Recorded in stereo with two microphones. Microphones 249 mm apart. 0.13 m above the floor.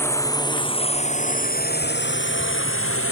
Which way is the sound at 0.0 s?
10° left (ahead or behind).